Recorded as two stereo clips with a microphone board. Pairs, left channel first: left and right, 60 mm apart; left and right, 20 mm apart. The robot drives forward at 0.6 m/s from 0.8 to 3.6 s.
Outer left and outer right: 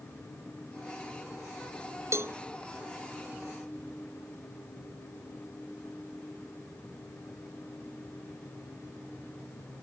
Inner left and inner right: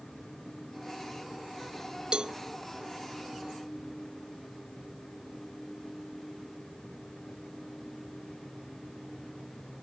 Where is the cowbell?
50° right (ahead or behind), 0.6 m; by 2.4 s 40° right (ahead or behind), 0.7 m.